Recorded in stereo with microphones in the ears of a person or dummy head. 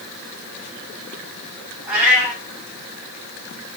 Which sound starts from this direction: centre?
A cat meowing, at 1.9 s.